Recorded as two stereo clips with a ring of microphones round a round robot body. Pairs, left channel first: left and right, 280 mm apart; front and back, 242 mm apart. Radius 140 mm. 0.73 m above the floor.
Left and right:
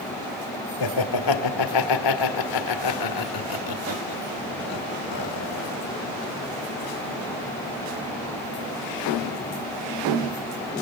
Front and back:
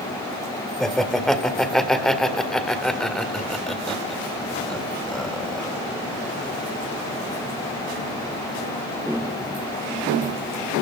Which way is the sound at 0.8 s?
90° left.